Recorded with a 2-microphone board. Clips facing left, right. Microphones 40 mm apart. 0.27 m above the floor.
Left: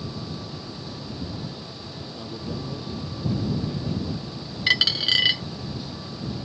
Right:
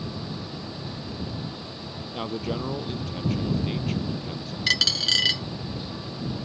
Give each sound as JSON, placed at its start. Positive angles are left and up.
{"t": 2.1, "sound": "a man speaking", "side_deg": -70}
{"t": 4.7, "sound": "a dropped coin", "side_deg": 15}